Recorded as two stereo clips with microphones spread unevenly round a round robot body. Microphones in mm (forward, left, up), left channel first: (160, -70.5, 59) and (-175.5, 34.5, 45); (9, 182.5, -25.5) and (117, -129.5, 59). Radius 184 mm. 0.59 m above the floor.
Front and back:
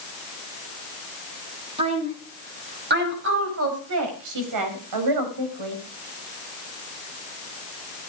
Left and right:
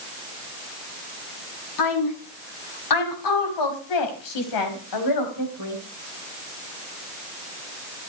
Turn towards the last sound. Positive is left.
turn(degrees=150)